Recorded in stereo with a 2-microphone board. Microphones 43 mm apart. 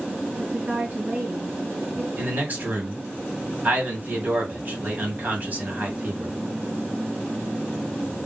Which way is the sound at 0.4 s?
55° right (ahead or behind).